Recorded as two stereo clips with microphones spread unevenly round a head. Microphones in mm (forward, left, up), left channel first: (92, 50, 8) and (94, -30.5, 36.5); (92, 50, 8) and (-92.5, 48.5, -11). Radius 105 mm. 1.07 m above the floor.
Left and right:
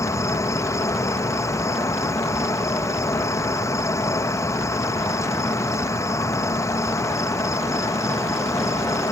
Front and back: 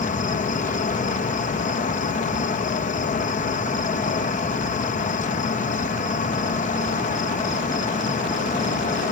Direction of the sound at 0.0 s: 50° left.